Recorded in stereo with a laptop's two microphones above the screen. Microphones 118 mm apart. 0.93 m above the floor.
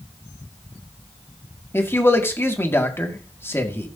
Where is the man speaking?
20° left (ahead or behind), 2 m.